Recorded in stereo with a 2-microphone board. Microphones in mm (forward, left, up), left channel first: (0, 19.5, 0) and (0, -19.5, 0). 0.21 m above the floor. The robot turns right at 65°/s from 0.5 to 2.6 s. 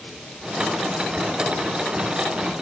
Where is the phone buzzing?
No phone buzzing in this recording.